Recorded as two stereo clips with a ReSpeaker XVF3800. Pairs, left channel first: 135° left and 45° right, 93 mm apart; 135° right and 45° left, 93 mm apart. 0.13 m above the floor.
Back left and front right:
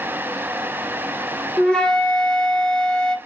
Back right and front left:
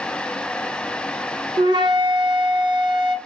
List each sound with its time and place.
1.6 s a flute: 55° left, 0.6 m